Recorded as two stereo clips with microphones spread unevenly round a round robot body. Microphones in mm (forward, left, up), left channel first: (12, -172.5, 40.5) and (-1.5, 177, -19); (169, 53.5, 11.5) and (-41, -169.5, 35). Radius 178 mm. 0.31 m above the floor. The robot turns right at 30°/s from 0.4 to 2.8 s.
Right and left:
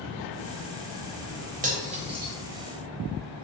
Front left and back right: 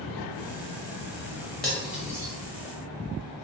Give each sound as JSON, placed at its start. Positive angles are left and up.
{"t": 1.6, "sound": "cutlery clinking", "azimuth_deg": 130, "distance_m": 0.7}